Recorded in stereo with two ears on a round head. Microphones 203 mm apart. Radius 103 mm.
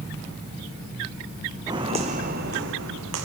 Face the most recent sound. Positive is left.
turn(degrees=-70)  # may be behind; listen again after turning